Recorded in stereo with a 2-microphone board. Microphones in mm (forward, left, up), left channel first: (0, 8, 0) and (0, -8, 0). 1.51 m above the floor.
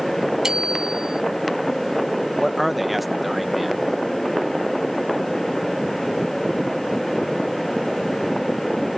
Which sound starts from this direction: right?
A bicycle bell, at 0.4 s.